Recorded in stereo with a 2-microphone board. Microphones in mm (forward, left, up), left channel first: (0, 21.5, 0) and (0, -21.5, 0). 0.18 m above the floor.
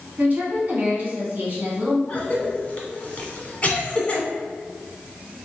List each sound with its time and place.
0.2 s a woman speaking: 40° right (ahead or behind), 1.4 m
2.1 s a cough: 30° left (ahead or behind), 1.3 m